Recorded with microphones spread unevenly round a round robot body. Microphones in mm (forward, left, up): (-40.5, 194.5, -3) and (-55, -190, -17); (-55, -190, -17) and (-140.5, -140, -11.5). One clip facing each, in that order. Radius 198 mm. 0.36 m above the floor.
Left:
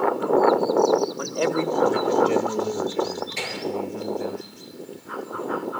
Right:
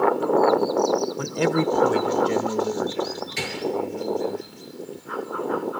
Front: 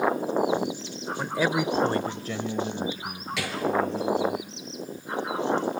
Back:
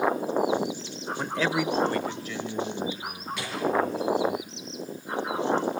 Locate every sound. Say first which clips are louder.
1.2 s a man speaking: right 2 dB, front 1 dB; 115° right, 1.2 m; by 4.4 s 15° left, 3.5 m
3.4 s a gunshot: right 2 dB, front 3 dB; 25° right, 6 m